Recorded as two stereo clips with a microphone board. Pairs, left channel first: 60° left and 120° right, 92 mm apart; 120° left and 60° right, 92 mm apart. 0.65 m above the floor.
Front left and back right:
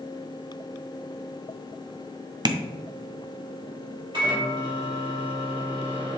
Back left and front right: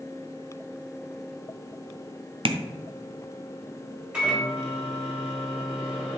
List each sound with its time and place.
2.5 s tapping: 80° right, 0.5 m
4.1 s a microwave: 135° right, 2.5 m